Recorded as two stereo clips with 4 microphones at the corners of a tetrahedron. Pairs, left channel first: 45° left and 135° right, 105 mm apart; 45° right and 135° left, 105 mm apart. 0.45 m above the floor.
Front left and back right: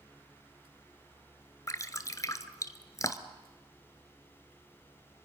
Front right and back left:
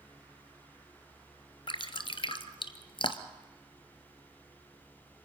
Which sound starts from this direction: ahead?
Dripping, at 1.7 s.